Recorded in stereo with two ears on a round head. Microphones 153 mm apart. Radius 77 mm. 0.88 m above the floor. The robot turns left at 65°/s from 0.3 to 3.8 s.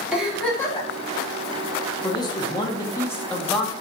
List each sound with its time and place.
0.1 s a giggle: 175° right, 1.1 m; by 0.9 s 145° left, 1.1 m
2.0 s a man speaking: 20° left (ahead or behind), 0.5 m; by 3.7 s centre (ahead or behind), 0.5 m